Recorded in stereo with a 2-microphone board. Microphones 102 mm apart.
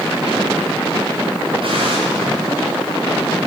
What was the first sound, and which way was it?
A gunshot, 60° right (ahead or behind).